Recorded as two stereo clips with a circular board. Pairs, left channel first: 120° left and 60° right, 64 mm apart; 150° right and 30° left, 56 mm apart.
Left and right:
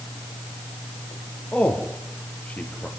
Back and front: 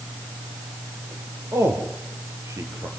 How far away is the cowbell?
I don't hear a cowbell.